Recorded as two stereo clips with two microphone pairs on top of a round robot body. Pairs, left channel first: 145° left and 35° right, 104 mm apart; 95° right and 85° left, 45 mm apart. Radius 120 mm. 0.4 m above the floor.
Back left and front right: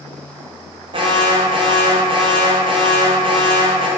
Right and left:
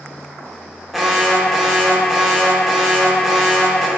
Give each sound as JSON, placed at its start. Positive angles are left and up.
{"t": 0.9, "sound": "an alarm", "azimuth_deg": 0, "distance_m": 1.5}